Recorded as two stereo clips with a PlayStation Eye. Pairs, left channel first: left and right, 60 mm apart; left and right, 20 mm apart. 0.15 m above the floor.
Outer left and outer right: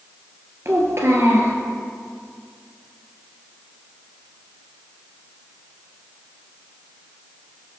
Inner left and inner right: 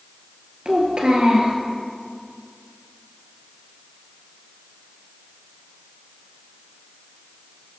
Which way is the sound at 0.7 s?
50° right (ahead or behind).